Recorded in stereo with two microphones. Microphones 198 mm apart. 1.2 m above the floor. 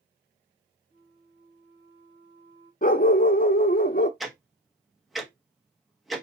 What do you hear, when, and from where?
0.9 s a flute: 60° right (ahead or behind), 2.0 m
2.8 s a dog barking: 45° left (ahead or behind), 0.8 m
4.2 s ticking: centre (ahead or behind), 1.0 m